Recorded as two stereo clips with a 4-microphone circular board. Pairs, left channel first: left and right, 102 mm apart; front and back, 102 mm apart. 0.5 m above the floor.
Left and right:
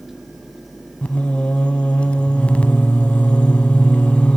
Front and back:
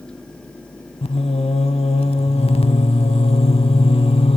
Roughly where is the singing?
Ahead.